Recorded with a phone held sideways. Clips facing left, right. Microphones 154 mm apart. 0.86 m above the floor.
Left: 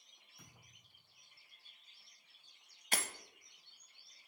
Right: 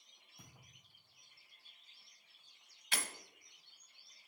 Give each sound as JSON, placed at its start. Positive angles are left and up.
{"t": 0.4, "sound": "a thud", "side_deg": -25, "distance_m": 4.0}
{"t": 2.9, "sound": "breaking glass", "side_deg": 45, "distance_m": 0.9}